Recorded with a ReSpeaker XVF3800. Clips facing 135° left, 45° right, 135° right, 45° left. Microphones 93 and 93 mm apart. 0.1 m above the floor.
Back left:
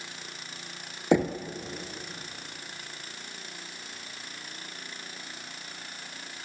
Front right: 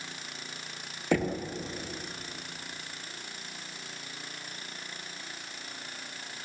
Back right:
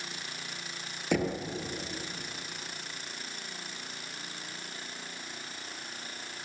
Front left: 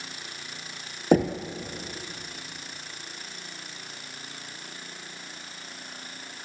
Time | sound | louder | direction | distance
1.1 | knocking | back left 4 dB, front left 8 dB | 70° left | 1.9 m